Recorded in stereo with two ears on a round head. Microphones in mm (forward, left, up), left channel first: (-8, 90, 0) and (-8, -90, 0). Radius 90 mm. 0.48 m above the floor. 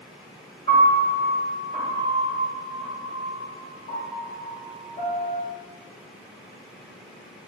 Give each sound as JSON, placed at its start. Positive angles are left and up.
{"t": 0.7, "sound": "a piano", "side_deg": 30, "distance_m": 1.4}